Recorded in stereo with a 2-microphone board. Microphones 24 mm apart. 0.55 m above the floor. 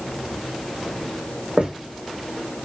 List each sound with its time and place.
1.6 s footsteps: 60° right (ahead or behind), 1.2 m